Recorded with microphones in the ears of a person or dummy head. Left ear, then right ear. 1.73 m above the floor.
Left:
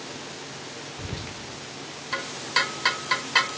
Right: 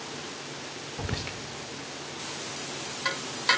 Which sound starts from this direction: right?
Whispering, at 1.0 s.